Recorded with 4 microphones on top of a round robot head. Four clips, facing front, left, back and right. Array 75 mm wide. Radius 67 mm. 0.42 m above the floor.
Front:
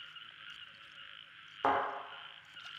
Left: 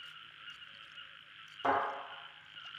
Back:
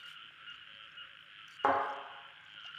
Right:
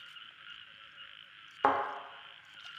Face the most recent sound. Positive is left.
turn(degrees=-105)